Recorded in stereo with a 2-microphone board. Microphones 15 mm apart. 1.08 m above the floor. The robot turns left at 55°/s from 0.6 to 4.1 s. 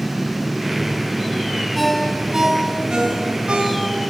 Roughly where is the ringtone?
Ahead.